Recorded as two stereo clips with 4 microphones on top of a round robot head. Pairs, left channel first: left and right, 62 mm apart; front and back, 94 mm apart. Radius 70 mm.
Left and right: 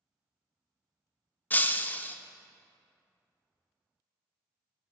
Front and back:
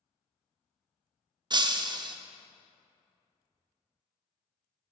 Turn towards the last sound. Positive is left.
turn(degrees=150)